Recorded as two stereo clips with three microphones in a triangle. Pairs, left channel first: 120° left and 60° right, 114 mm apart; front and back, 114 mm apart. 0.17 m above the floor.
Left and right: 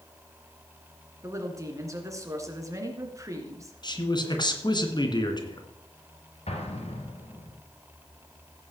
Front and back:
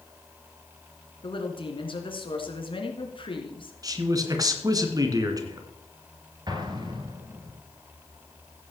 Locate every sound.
1.2 s a woman speaking: 10° right, 2 m
3.8 s a man speaking: 140° left, 1.9 m
6.5 s an explosion: 130° left, 2 m